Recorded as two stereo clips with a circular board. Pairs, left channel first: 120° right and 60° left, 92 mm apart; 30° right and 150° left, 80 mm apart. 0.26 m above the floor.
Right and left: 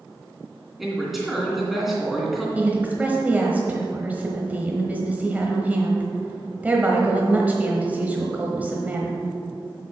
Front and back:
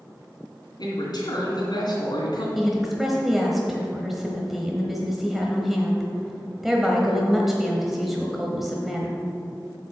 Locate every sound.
0.8 s a man speaking: 30° right, 2.5 m
2.5 s a woman speaking: 65° left, 1.0 m